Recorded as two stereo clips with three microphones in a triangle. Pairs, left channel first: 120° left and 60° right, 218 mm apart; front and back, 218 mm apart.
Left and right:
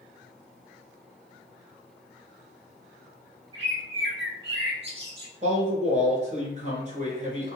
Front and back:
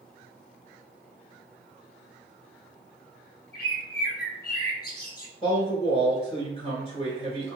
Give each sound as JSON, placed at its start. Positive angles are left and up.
{"t": 3.5, "sound": "a bird", "azimuth_deg": -35, "distance_m": 0.7}
{"t": 5.4, "sound": "a man speaking", "azimuth_deg": -45, "distance_m": 1.5}